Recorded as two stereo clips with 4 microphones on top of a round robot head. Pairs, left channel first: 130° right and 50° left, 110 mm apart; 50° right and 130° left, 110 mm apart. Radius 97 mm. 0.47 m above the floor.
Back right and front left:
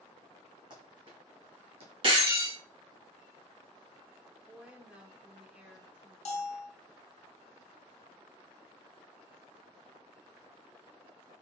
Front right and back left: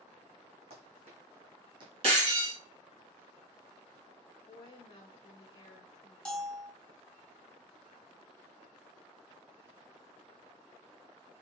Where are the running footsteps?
100° left, 2 m; by 1.9 s 80° left, 1.5 m.